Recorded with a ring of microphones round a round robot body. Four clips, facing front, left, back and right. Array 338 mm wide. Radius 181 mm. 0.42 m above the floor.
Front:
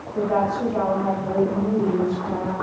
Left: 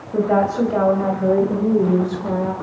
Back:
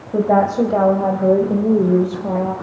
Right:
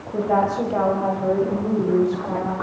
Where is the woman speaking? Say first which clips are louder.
Left 3 dB, back 7 dB; 165° left, 3.5 m; by 2.5 s 145° left, 2.5 m.